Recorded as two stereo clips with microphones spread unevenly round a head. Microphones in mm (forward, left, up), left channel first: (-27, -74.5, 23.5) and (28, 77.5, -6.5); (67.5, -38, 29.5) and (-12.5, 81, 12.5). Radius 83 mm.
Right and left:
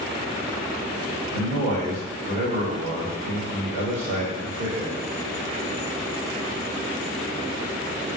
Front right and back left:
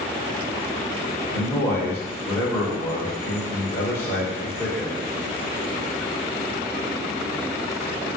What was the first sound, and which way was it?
A man speaking, 20° left.